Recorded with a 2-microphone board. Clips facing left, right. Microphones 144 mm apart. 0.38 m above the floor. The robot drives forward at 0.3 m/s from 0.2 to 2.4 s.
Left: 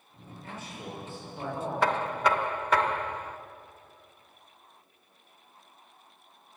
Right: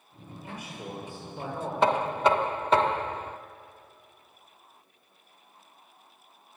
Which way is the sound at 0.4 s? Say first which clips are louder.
Right 1 dB; 10° right (ahead or behind).